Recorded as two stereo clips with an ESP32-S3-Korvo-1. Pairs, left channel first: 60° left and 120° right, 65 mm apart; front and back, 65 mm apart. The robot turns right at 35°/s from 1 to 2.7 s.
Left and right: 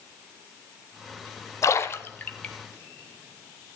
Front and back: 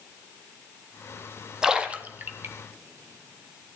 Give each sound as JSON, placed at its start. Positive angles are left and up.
{"t": 1.6, "sound": "a splash", "azimuth_deg": 100, "distance_m": 1.2}